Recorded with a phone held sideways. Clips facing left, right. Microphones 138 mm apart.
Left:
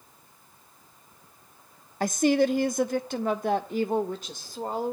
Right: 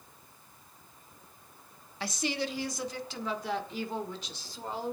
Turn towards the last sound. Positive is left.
turn(degrees=50)  # may be behind; listen again after turning